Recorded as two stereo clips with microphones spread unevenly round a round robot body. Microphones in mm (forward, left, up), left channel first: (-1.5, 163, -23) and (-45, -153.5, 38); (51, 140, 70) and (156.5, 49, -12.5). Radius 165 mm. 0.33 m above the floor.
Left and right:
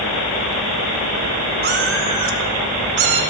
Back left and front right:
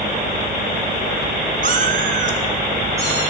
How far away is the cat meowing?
About 1.5 m.